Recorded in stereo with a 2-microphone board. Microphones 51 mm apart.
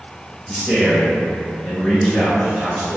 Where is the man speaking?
10° left (ahead or behind), 1.2 m; by 3.0 s 30° left (ahead or behind), 1.6 m.